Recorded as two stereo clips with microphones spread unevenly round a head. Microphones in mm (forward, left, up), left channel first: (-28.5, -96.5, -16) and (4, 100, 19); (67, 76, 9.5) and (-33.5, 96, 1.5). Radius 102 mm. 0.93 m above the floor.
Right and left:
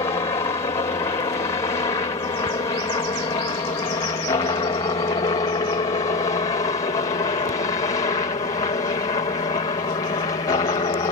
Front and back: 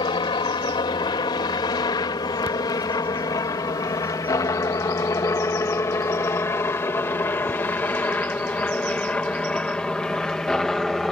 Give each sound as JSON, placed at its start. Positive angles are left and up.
{"t": 0.0, "sound": "a helicopter", "azimuth_deg": -35}